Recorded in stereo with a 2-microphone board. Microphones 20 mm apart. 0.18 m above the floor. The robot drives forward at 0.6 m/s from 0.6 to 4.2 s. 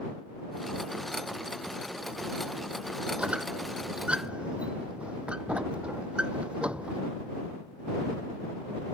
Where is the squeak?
85° right; by 7.0 s 70° right (ahead or behind).